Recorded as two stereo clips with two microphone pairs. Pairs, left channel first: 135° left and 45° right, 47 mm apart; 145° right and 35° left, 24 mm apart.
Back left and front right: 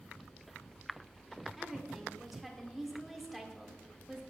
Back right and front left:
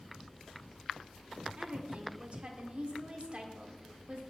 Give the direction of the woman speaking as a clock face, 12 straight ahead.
11 o'clock.